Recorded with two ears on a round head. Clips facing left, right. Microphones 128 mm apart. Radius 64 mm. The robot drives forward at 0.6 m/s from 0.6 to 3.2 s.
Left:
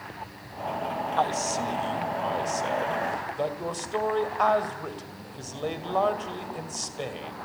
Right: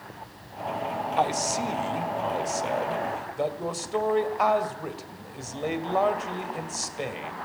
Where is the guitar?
No guitar in this recording.